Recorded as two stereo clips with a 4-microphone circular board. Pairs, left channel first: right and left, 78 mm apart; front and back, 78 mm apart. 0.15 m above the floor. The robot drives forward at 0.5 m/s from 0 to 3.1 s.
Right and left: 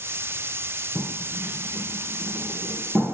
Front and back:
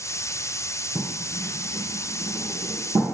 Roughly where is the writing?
Behind.